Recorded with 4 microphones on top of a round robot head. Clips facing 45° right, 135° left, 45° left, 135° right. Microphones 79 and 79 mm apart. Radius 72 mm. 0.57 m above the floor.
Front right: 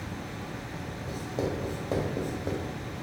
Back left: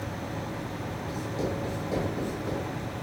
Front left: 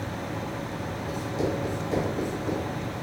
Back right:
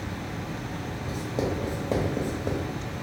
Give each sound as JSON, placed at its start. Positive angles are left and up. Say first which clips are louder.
{"t": 1.1, "sound": "writing", "louder": "front right 1 dB, even", "azimuth_deg": -95, "distance_m": 1.0}